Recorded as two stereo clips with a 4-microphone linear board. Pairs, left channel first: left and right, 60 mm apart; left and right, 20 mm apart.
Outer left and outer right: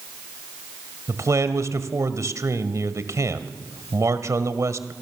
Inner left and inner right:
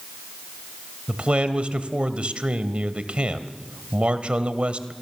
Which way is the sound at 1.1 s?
60° right (ahead or behind).